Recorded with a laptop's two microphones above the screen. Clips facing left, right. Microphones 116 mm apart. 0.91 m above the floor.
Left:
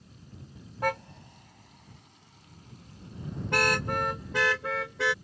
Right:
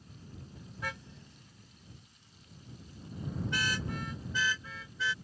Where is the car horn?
65° left (ahead or behind); by 5.1 s 70° left (ahead or behind).